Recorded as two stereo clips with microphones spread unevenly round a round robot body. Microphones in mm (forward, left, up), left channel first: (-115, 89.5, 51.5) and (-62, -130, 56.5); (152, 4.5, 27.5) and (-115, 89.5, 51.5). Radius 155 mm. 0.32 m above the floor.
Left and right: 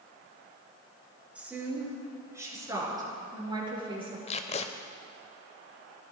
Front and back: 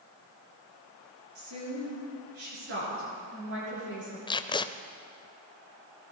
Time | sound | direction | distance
1.4 | a woman speaking | 160° right | 6.5 m
4.3 | tape being pulled | 50° left | 0.6 m